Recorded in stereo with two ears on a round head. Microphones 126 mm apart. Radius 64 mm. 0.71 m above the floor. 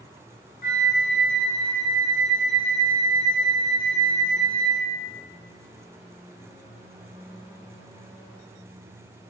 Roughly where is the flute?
Left.